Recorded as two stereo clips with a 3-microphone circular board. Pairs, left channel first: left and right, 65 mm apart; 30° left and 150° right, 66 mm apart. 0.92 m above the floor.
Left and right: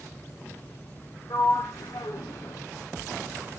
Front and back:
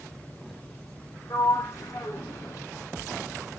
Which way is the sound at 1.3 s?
65° left.